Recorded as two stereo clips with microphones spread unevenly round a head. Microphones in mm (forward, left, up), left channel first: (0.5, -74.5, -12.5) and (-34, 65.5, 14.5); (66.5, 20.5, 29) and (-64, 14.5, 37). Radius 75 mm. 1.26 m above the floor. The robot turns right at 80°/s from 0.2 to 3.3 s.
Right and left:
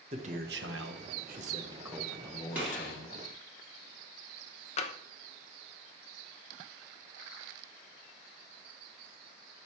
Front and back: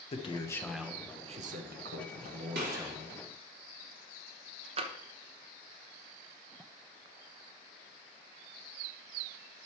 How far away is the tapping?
About 0.9 m.